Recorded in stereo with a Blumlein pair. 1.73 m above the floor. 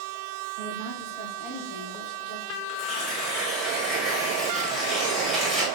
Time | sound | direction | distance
0.6 | a woman speaking | 35° right | 0.9 m
2.7 | tearing paper | 5° right | 1.4 m